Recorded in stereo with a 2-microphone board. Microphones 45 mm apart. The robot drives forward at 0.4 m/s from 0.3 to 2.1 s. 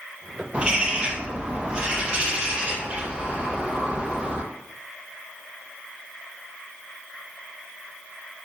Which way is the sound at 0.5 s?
25° right (ahead or behind).